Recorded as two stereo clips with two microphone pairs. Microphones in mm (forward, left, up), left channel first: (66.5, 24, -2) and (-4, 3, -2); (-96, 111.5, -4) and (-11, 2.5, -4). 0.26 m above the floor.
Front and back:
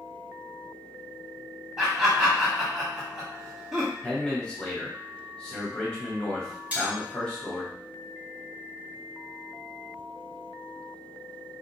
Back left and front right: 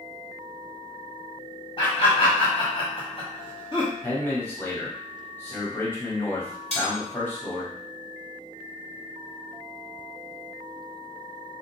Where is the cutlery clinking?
130° left, 1.2 m.